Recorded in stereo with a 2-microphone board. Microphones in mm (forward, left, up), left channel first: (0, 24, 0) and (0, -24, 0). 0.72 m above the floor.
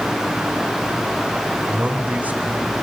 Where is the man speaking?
25° right (ahead or behind), 2.5 m; by 2.7 s 40° right (ahead or behind), 3 m.